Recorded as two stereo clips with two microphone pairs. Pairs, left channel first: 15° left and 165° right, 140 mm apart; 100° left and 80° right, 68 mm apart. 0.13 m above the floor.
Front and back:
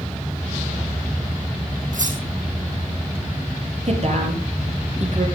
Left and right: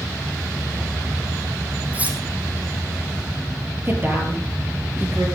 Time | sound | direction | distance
1.9 | cutlery clinking | 145° right | 3 m
3.9 | a woman speaking | 135° right | 3.5 m